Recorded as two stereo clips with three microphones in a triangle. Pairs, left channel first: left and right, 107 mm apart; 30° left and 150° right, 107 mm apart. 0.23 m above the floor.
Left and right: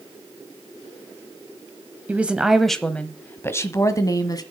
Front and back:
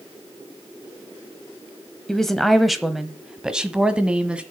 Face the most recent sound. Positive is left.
turn(degrees=135)